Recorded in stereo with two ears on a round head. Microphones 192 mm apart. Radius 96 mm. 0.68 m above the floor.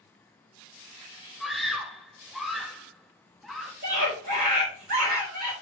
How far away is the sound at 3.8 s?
About 3.5 m.